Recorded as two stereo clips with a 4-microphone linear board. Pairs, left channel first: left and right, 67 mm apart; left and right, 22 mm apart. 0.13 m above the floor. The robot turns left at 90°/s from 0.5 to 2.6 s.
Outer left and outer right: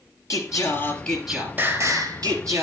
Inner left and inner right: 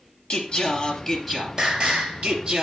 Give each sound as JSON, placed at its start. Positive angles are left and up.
{"t": 0.3, "sound": "singing", "azimuth_deg": 65, "distance_m": 3.0}